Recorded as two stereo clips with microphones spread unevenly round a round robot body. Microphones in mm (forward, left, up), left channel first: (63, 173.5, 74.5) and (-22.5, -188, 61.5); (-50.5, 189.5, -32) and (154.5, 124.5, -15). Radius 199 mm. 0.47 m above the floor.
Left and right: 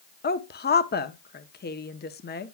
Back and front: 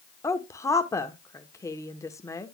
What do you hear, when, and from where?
0.2 s a woman speaking: 115° left, 0.9 m